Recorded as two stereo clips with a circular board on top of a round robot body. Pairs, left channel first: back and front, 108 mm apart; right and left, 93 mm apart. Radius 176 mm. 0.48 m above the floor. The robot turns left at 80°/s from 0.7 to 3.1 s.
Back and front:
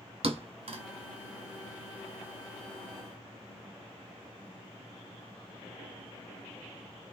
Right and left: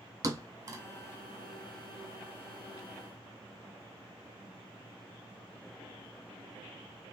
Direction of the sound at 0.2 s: 35° left.